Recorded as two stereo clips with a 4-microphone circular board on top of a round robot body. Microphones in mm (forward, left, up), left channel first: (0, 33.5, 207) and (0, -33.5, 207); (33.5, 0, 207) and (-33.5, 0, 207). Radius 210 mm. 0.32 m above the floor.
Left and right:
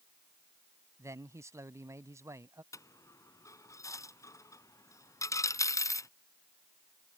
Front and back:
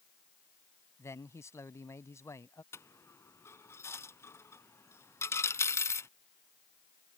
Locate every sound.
1.0 s a man speaking: 45° right
2.7 s a dropped coin: 50° left